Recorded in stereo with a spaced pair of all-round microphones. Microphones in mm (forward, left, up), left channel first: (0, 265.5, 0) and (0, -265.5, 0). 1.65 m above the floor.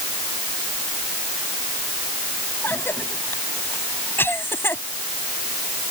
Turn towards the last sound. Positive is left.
turn(degrees=5)  # may be behind; listen again after turning